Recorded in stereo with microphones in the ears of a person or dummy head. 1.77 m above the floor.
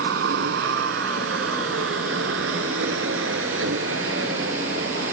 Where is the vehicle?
70° right (ahead or behind); by 5.1 s 75° right (ahead or behind).